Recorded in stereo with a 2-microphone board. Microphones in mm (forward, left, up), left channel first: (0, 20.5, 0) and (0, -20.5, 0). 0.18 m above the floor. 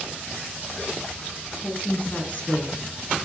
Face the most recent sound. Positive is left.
turn(degrees=20)  # may be behind; listen again after turning